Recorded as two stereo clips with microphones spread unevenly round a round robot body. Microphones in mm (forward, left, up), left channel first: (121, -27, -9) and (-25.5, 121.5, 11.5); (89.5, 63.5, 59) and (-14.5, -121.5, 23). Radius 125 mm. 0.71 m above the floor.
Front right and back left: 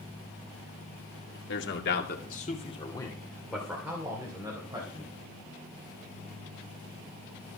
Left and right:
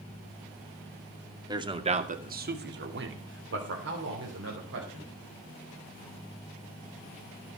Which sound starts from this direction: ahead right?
A man speaking, at 1.5 s.